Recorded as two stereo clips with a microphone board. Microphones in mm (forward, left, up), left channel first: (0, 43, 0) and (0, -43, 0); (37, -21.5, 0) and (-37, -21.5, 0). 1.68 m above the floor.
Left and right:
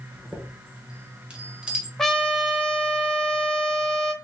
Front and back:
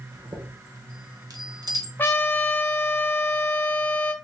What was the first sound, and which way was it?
A chime, 165° right.